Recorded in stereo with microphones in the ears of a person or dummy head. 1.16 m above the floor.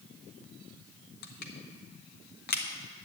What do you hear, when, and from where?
1.2 s crushing: 55° left (ahead or behind), 1.1 m